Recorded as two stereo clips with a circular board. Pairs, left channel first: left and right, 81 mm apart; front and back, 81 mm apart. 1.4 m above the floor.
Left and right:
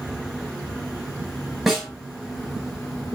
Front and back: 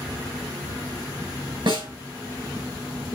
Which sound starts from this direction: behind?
A snare drum, at 1.7 s.